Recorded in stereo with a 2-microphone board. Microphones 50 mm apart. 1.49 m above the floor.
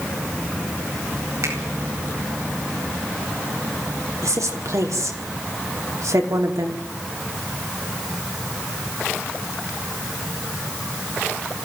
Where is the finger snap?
75° right (ahead or behind), 9 m.